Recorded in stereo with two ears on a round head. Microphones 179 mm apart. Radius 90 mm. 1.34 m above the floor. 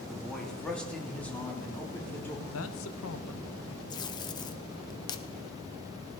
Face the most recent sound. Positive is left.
turn(degrees=20)  # may be behind; listen again after turning